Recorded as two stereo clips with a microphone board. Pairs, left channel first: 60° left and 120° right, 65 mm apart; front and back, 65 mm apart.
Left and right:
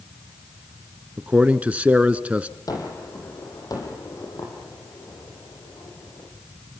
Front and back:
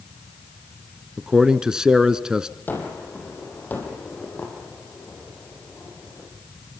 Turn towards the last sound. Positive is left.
turn(degrees=60)